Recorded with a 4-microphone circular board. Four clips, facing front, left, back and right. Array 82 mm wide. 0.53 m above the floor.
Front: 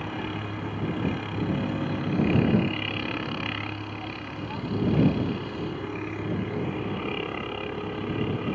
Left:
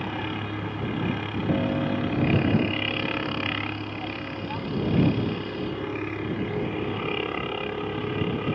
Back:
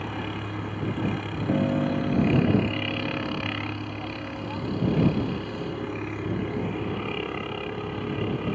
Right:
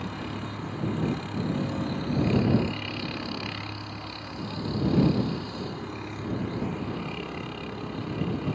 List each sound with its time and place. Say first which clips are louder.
0.0 s a helicopter: left 4 dB, even; 100° left
1.5 s a piano: left 7 dB, back 7 dB; 135° left